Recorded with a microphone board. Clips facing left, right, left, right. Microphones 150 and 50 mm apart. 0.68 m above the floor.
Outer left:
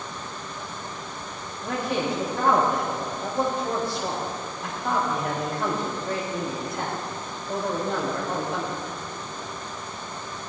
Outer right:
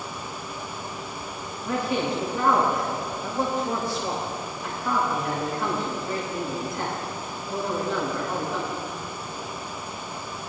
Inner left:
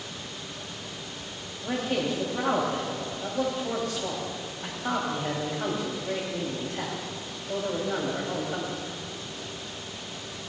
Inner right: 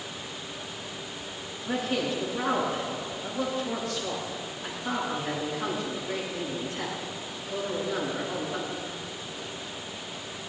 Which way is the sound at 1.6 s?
65° left (ahead or behind).